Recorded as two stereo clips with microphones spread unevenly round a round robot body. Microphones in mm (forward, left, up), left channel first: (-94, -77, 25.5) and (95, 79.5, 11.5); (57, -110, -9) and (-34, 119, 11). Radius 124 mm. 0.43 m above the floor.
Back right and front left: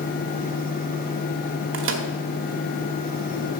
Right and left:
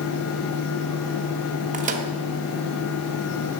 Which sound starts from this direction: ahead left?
A microwave, at 1.7 s.